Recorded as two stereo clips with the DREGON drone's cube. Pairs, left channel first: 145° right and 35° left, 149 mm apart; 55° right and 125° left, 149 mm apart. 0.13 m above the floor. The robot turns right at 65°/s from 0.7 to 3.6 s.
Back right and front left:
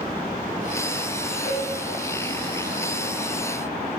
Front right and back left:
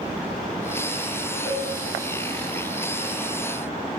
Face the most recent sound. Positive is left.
turn(degrees=-70)